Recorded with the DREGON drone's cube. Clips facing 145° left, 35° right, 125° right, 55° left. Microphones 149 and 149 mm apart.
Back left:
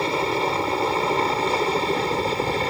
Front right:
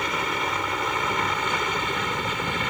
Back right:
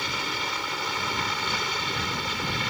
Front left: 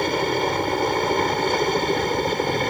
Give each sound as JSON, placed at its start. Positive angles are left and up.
{"t": 0.0, "sound": "a helicopter", "azimuth_deg": 90}